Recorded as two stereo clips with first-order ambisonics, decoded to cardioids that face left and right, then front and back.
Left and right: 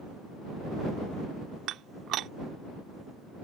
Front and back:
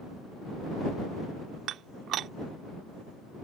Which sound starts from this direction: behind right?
Dishes clattering, at 1.7 s.